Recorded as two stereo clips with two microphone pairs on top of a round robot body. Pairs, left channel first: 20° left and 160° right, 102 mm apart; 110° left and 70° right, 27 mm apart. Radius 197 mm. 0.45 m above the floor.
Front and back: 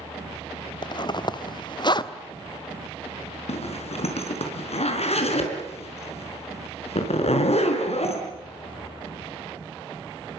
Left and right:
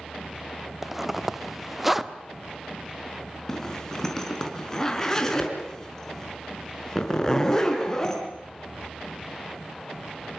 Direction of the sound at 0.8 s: 10° left.